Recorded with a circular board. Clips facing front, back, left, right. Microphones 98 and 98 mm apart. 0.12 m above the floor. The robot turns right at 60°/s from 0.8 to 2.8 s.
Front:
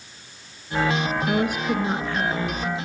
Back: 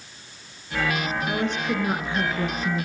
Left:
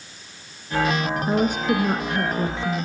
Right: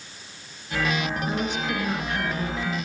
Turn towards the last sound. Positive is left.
turn(degrees=155)